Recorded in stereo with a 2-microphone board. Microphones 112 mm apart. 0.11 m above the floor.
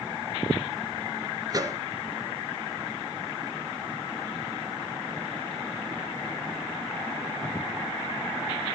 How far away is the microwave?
About 1.5 m.